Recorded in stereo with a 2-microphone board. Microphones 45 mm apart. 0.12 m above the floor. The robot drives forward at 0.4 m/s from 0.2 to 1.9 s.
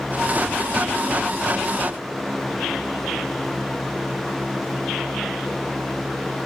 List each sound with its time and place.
Only background noise.